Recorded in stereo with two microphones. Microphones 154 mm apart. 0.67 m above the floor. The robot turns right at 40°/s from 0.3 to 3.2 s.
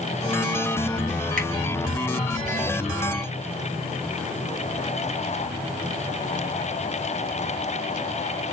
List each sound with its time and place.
1.4 s a finger snap: 60° right (ahead or behind), 2.5 m; by 1.5 s 65° right (ahead or behind), 2.5 m